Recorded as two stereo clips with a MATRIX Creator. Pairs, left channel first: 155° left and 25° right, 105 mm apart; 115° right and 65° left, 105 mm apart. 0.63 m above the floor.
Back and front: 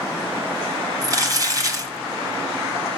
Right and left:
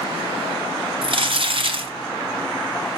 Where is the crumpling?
35° left, 1.8 m.